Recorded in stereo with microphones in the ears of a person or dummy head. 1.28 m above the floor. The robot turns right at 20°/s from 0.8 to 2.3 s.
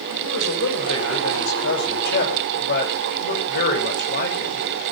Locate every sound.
0.2 s a man speaking: 80° left, 6 m; by 4.6 s 50° left (ahead or behind), 6 m